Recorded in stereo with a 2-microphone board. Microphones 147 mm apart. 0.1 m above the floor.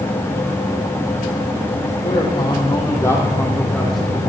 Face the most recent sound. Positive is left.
turn(degrees=0)  # may be behind; listen again after turning